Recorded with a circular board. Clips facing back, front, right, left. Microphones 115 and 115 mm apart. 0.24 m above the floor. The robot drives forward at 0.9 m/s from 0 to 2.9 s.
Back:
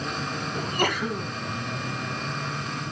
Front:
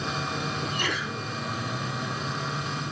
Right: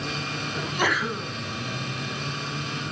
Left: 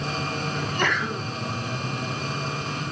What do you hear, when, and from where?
0.6 s a sneeze: 170° right, 1.7 m